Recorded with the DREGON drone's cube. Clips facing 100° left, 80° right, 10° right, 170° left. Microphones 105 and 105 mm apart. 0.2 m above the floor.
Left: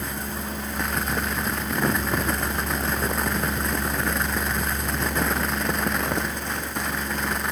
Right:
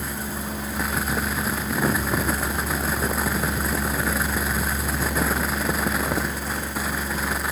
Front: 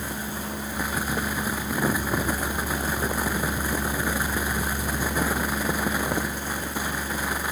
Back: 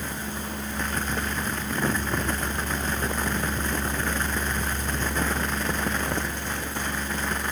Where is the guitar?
I don't hear a guitar.